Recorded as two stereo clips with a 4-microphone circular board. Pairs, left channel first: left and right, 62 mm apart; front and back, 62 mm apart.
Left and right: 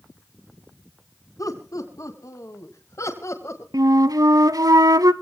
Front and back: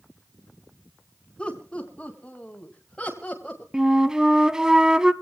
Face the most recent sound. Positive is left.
turn(degrees=-100)